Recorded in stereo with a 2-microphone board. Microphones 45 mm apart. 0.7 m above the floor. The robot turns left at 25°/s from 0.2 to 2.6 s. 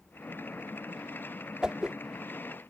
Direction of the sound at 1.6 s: 20° right (ahead or behind).